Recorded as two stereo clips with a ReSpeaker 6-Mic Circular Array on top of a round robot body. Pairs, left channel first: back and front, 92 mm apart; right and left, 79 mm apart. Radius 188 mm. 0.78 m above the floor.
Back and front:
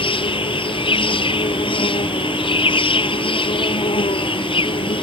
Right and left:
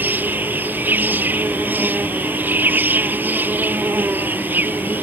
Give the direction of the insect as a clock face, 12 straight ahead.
7 o'clock.